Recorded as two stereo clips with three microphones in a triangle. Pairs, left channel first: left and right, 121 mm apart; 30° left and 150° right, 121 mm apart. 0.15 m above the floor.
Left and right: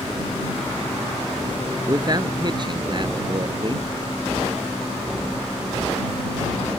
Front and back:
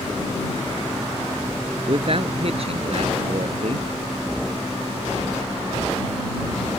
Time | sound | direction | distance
1.9 | a man speaking | 140° right | ?